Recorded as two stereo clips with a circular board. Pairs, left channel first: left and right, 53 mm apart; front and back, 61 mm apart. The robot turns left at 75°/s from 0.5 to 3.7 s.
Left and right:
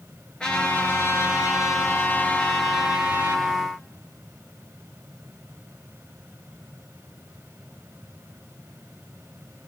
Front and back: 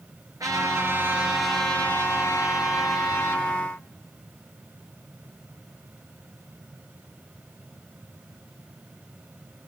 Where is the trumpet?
160° left, 5 m; by 3.5 s 60° right, 5 m.